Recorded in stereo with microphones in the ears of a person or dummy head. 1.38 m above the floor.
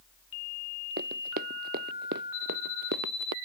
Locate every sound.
1.0 s running footsteps: 50° right (ahead or behind); by 3.4 s 60° right (ahead or behind)